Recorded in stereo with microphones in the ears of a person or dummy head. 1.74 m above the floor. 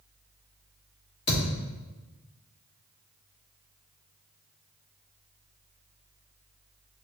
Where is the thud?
30° left (ahead or behind), 1.4 m.